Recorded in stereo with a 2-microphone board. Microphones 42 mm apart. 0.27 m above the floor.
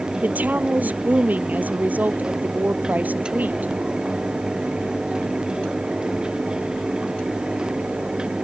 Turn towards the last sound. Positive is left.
turn(degrees=-35)  # may be behind; listen again after turning